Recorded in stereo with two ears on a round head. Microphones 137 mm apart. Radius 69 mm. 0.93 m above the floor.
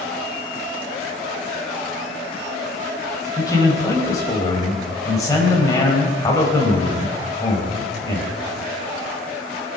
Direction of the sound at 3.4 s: 25° left (ahead or behind).